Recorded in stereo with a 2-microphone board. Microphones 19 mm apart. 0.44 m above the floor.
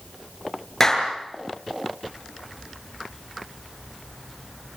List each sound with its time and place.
0.8 s a clap: 25° left (ahead or behind), 7 m